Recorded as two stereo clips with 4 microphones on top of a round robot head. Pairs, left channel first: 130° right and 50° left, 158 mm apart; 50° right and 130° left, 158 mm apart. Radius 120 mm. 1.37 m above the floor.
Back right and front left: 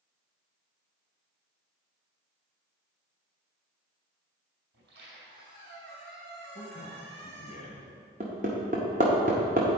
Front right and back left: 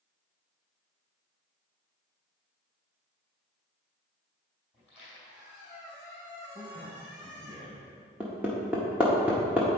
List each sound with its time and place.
4.7 s a squeak: 45° left, 2 m
6.5 s a man speaking: 170° right, 1.1 m
8.2 s hammering: 50° left, 0.7 m